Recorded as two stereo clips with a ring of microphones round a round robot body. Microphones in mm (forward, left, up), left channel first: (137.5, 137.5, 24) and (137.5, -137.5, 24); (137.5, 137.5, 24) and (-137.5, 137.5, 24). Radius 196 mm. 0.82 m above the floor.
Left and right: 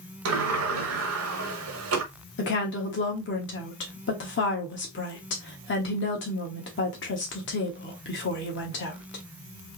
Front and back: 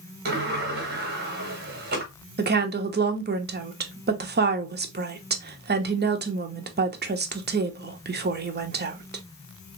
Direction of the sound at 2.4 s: 135° left.